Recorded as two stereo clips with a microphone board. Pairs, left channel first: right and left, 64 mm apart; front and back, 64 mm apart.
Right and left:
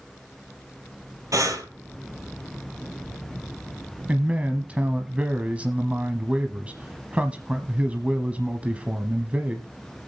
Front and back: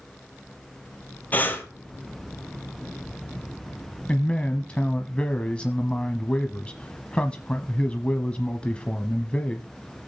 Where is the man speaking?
50° left, 1.0 m.